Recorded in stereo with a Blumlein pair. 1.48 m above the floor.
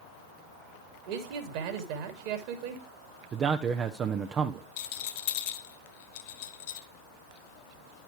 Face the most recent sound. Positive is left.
turn(degrees=50)